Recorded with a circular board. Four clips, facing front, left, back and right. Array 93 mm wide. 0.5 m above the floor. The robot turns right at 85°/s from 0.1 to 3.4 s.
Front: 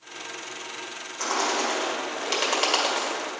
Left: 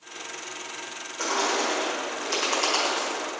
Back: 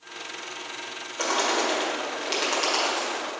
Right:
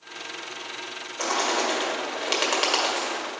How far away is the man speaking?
No man speaking in this recording.